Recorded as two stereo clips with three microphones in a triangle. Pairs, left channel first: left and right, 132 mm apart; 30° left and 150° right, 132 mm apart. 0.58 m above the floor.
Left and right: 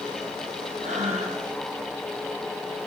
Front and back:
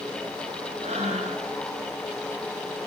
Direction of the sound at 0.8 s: 115° right.